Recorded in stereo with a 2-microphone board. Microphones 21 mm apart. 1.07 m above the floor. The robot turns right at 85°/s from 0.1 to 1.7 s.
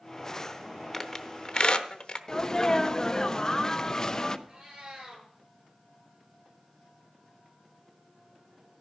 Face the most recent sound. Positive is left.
turn(degrees=-45)  # may be behind; listen again after turning